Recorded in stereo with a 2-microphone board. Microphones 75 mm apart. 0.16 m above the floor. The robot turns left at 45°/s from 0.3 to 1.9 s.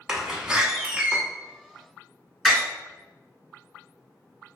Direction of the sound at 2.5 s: Centre (ahead or behind).